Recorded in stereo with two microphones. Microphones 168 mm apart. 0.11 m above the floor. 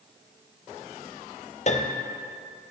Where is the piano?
45° left (ahead or behind), 0.8 m.